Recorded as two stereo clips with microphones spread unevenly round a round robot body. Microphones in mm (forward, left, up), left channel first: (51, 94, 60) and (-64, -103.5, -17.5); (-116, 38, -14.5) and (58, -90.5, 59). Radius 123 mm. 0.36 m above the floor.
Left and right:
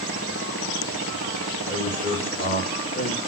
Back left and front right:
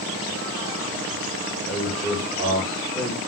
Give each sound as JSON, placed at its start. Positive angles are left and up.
{"t": 1.7, "sound": "a man speaking", "azimuth_deg": 115, "distance_m": 1.1}